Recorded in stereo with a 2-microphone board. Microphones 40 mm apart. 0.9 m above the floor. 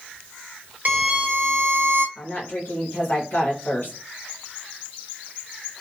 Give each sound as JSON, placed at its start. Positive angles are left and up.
{"t": 0.8, "sound": "a violin", "side_deg": -50, "distance_m": 0.9}
{"t": 2.1, "sound": "a woman speaking", "side_deg": 50, "distance_m": 1.3}